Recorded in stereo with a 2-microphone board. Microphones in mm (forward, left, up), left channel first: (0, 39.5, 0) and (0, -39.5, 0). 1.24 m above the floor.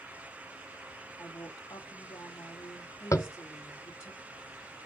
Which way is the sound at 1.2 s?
45° left (ahead or behind).